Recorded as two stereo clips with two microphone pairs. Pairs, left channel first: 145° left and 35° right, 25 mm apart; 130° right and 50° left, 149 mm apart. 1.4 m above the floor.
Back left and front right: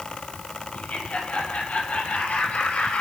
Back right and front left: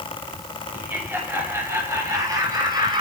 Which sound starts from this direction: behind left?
Laughter, at 0.7 s.